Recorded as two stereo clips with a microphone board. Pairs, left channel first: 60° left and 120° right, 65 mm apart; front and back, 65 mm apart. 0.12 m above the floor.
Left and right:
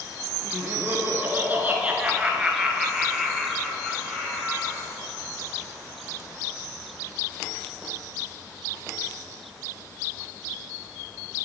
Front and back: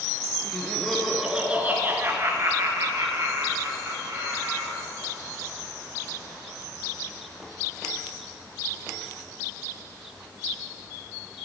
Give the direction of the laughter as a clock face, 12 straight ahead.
2 o'clock.